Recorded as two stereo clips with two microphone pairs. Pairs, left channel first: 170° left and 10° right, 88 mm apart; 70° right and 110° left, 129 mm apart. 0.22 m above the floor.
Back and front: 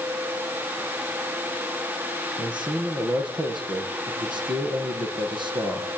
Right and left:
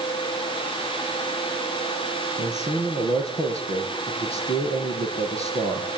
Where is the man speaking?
35° right, 7 m.